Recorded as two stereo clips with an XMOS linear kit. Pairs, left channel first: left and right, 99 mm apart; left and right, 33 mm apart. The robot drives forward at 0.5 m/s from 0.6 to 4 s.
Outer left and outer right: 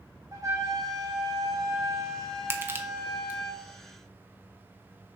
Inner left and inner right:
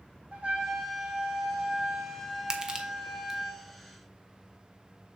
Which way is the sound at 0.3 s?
35° right (ahead or behind).